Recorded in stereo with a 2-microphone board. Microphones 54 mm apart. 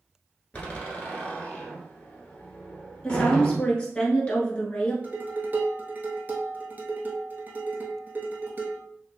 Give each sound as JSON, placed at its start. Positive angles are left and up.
{"t": 0.5, "sound": "a door slam", "side_deg": 25, "distance_m": 1.0}
{"t": 3.0, "sound": "a woman speaking", "side_deg": 25, "distance_m": 1.2}
{"t": 5.0, "sound": "dishes clattering", "side_deg": -35, "distance_m": 1.0}